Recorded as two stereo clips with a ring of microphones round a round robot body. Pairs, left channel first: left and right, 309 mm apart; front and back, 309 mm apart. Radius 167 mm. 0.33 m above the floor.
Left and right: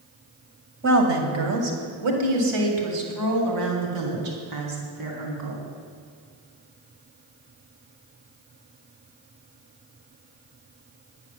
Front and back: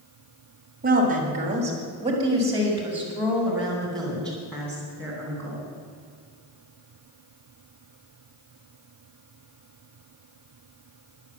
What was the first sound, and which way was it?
A woman speaking, 130° right.